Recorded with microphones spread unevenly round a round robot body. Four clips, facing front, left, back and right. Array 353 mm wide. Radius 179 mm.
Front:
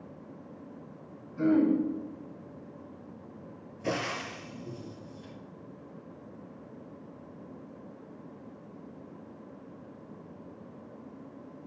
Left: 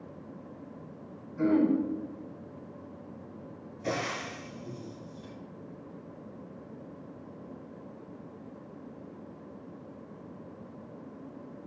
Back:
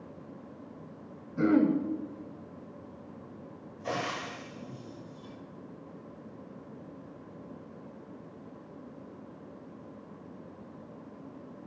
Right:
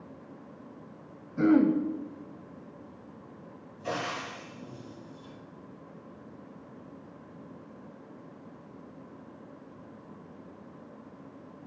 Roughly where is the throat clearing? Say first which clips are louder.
Right 3 dB, even; behind right.